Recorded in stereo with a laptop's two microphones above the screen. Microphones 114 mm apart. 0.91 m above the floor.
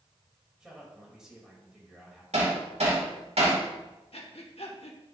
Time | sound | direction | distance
0.6 | a man speaking | 5° right (ahead or behind) | 3.5 m
2.3 | hammering | 80° right | 2.5 m
4.1 | breathing | 65° left (ahead or behind) | 1.1 m